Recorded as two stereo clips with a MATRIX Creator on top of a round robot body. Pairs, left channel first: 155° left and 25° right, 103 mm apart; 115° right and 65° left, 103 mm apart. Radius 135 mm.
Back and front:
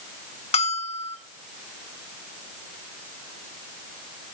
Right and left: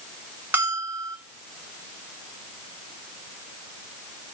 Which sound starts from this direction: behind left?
A bell, at 0.5 s.